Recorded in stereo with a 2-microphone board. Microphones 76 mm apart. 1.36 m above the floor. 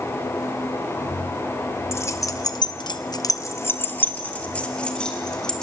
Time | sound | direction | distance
1.9 | keys jangling | 35° left (ahead or behind) | 1.3 m